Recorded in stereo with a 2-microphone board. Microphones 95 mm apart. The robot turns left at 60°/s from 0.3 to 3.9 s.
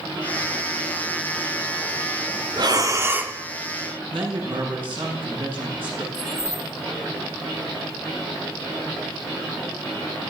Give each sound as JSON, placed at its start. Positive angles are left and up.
{"t": 2.6, "sound": "breathing", "azimuth_deg": -115, "distance_m": 1.3}
{"t": 4.1, "sound": "a man speaking", "side_deg": -65, "distance_m": 7.5}
{"t": 6.1, "sound": "keys jangling", "side_deg": -75, "distance_m": 5.0}